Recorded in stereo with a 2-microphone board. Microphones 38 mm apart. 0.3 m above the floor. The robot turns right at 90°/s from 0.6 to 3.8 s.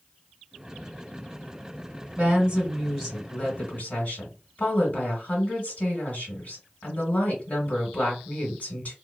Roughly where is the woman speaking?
Right.